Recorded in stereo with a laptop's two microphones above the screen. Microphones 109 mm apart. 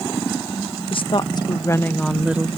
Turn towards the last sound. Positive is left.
turn(degrees=-20)  # may be behind; listen again after turning